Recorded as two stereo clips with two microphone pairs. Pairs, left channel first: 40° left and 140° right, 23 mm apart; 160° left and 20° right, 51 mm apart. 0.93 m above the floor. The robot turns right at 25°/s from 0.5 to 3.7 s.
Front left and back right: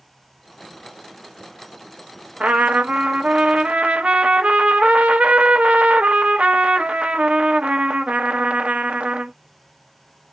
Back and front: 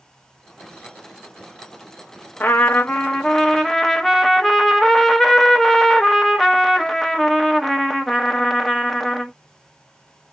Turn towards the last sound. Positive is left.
turn(degrees=-110)